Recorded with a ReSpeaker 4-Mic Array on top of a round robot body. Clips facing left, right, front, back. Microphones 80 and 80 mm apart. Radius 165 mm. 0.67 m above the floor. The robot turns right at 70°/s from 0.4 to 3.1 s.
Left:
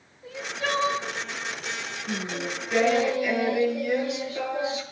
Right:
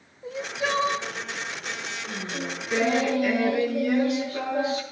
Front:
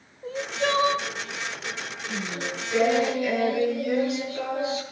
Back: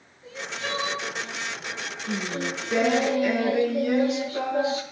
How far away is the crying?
About 1.4 m.